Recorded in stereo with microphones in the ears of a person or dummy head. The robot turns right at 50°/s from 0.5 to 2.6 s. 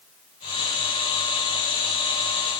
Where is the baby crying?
I don't hear a baby crying.